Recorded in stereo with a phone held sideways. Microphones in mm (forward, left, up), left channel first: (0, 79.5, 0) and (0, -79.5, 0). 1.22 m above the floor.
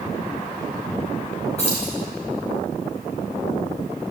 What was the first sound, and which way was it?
Keys jangling, 45° left (ahead or behind).